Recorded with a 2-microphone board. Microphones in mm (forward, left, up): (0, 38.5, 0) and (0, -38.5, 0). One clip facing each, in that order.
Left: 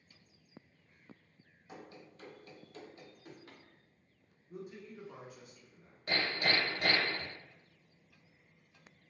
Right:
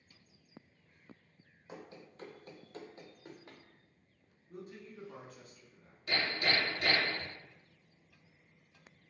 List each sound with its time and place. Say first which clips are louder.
1.7 s running footsteps: right 1 dB; 25° right (ahead or behind), 0.7 m; by 3.6 s 20° right (ahead or behind), 0.9 m
4.5 s a man speaking: left 1 dB; 10° left (ahead or behind), 0.7 m
6.1 s hammering: even; 40° left (ahead or behind), 1.3 m